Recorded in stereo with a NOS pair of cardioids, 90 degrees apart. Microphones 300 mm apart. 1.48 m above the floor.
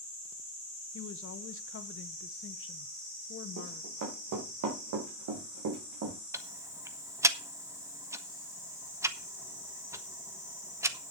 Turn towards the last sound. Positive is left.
turn(degrees=-10)